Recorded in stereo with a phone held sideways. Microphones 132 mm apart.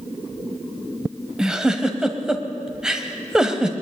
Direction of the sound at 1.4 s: 5° right (ahead or behind).